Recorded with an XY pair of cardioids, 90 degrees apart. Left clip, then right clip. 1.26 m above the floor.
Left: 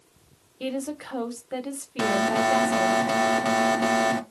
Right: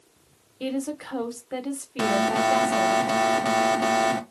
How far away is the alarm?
About 0.9 m.